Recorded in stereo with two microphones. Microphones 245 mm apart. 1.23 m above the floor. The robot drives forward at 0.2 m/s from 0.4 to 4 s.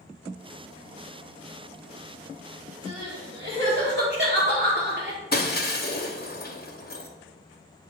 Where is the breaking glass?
40° left (ahead or behind), 0.8 m.